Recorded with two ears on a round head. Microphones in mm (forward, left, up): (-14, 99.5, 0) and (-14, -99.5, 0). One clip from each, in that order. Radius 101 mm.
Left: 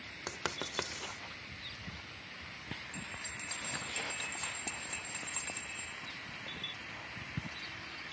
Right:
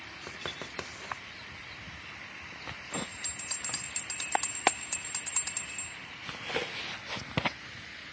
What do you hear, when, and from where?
0.3 s writing: 20° left (ahead or behind), 0.9 m
2.9 s a bell: 20° right (ahead or behind), 0.8 m